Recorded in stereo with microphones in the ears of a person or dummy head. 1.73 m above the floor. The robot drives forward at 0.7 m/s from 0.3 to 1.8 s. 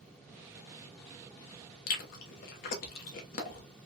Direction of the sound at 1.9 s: 55° left (ahead or behind).